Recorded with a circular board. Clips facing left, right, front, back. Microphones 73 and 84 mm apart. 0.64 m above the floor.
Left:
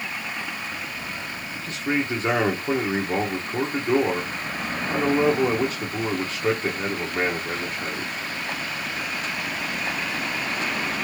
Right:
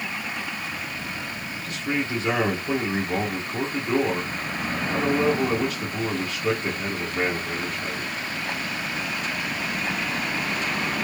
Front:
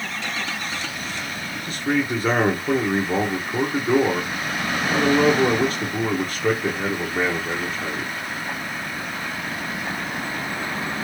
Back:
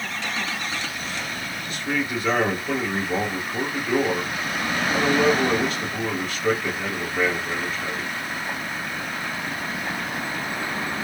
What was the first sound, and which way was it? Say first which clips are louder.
A man speaking: left 2 dB, front 5 dB; 45° left.